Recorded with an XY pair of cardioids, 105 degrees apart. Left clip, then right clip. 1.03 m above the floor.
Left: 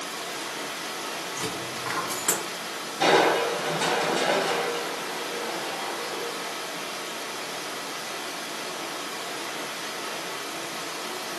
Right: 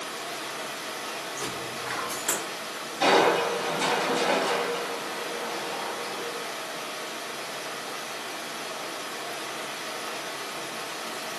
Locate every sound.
0.0 s running water: 35° left, 1.0 m
1.4 s a dropped coin: 45° left, 2.5 m
3.0 s crushing: 20° left, 2 m